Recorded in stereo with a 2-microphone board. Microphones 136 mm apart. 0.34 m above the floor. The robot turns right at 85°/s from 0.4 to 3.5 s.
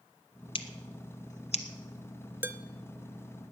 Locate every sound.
0.6 s scissors: 45° left (ahead or behind), 1.1 m
2.4 s dishes clattering: 15° right (ahead or behind), 0.5 m; by 2.6 s 20° right (ahead or behind), 0.5 m